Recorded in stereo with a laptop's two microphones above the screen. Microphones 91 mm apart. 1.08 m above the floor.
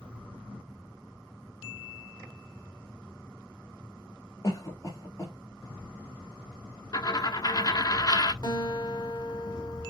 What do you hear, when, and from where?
4.4 s a cough: 35° left (ahead or behind), 2.0 m
6.9 s a dropped coin: 45° left (ahead or behind), 0.7 m
8.4 s a guitar: 50° left (ahead or behind), 2 m